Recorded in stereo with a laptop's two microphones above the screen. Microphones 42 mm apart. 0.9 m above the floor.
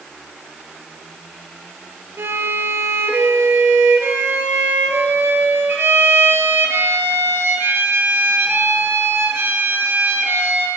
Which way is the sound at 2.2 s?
65° right (ahead or behind).